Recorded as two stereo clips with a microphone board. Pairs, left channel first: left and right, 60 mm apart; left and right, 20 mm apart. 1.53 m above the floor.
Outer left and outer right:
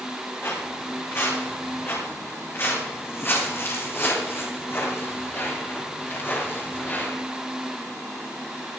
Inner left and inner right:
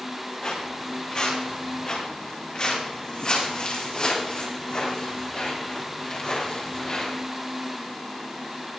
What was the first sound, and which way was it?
Footsteps, 45° left (ahead or behind).